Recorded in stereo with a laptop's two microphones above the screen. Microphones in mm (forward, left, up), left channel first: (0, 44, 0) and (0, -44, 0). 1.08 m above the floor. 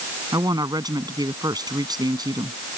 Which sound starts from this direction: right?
A woman speaking, at 0.3 s.